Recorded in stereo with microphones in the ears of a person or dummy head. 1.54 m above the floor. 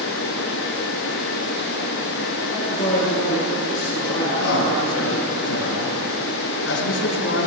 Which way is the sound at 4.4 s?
85° left.